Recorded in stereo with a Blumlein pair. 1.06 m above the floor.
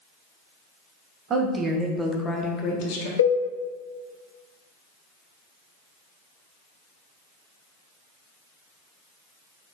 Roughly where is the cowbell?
Left.